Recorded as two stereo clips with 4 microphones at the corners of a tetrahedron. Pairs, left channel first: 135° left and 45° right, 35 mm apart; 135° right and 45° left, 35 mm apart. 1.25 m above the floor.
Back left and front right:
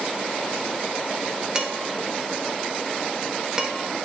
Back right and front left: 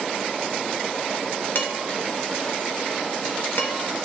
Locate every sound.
1.6 s dishes clattering: 115° right, 1.2 m